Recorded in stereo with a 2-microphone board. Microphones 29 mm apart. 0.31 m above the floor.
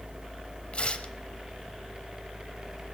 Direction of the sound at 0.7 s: 45° left (ahead or behind).